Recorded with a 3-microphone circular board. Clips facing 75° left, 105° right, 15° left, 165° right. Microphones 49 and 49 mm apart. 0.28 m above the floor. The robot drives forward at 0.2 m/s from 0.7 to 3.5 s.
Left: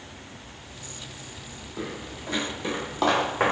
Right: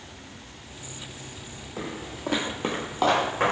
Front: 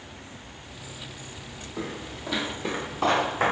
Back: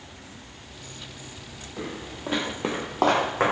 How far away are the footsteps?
About 1.1 m.